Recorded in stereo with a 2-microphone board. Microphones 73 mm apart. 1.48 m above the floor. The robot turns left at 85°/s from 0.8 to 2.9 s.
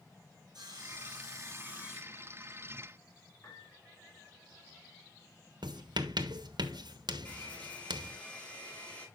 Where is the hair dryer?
25° left (ahead or behind), 6.5 m.